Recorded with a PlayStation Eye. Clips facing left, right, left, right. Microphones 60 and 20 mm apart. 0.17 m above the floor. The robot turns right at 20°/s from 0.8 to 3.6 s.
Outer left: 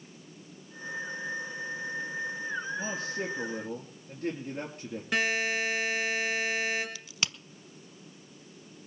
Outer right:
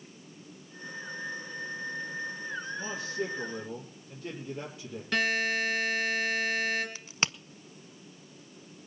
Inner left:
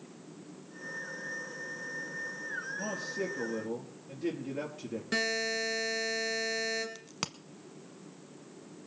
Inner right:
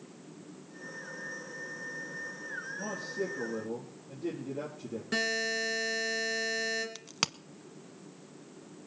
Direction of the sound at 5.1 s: 15° left (ahead or behind).